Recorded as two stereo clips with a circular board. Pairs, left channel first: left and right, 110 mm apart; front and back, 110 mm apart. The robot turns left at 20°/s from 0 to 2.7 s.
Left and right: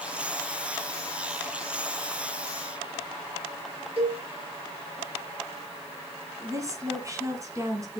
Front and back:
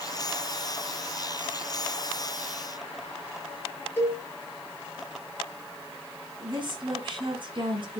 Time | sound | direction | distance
4.0 | a cowbell | 70° right | 3 m
6.4 | a woman speaking | 145° right | 2.5 m